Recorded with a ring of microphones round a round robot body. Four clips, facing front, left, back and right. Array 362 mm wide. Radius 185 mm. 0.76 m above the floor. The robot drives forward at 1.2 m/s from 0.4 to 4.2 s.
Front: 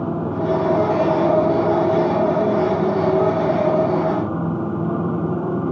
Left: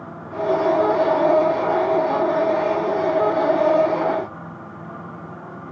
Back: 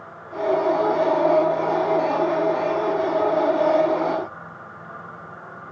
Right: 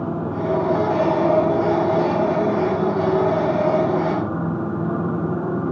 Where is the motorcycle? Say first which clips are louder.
Right 2 dB, front 5 dB; 30° right; by 5.7 s 35° right.